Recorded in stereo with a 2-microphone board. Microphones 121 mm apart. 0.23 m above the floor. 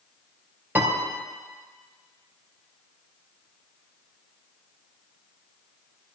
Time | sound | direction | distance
0.8 | a piano | 15° right (ahead or behind) | 3.5 m